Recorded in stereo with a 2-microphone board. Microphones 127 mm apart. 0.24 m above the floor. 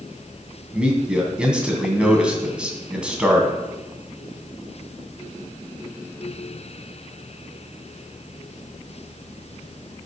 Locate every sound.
0.7 s a man speaking: 5° right (ahead or behind), 2.5 m